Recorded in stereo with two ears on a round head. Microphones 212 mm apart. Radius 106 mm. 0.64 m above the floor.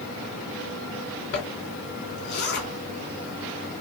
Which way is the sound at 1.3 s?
45° left (ahead or behind).